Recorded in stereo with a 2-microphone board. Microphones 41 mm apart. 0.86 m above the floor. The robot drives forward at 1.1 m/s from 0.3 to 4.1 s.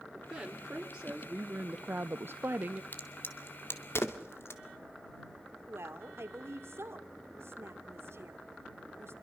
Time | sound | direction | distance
0.1 | a woman speaking | 15° right (ahead or behind) | 2 m
2.9 | a crack | 50° left (ahead or behind) | 2.5 m
5.7 | a woman speaking | 75° right (ahead or behind) | 2 m